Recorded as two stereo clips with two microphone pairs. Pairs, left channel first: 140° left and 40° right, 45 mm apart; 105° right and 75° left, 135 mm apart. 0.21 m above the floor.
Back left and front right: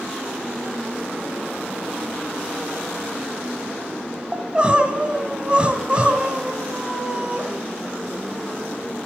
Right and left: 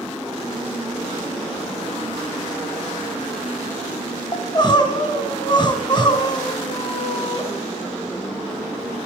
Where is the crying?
90° right, 1.7 m.